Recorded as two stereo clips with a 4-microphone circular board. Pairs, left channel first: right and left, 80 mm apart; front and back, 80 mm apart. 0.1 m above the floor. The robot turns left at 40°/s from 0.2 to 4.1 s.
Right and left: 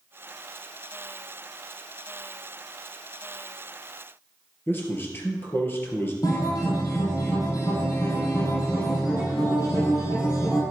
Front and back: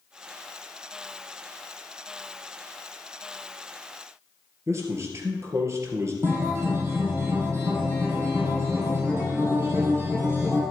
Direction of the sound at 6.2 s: 125° right.